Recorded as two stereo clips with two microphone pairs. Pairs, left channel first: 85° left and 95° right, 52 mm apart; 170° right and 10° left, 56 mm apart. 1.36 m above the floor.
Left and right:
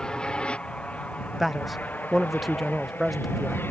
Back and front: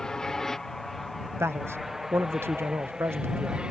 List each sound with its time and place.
0.0 s an aircraft: 130° left; by 3.7 s 75° left
1.4 s a man speaking: 10° right